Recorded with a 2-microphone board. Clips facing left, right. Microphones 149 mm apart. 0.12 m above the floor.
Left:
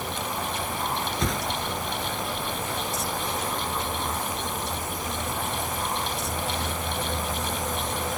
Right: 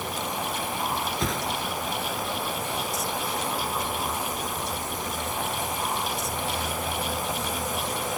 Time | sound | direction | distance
1.2 | a whoosh | centre (ahead or behind) | 1.5 m